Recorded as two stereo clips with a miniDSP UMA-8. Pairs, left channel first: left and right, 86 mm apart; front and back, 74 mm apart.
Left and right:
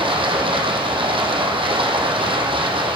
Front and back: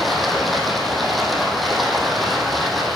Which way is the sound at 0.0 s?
90° right.